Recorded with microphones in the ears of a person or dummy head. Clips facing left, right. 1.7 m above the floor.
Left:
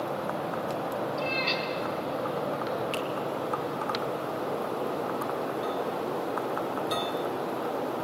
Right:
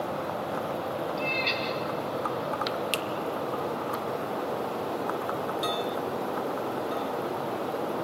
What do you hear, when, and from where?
1.2 s a cat meowing: 20° right (ahead or behind), 5.5 m; by 2.8 s 30° right (ahead or behind), 5 m
2.9 s a finger snap: 65° right (ahead or behind), 1.5 m